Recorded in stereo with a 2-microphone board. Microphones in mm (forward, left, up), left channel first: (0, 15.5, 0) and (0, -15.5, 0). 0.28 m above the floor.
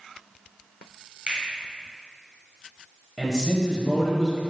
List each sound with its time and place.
1.3 s a finger snap: 40° right (ahead or behind), 1.5 m
3.2 s a man speaking: 5° left (ahead or behind), 1.0 m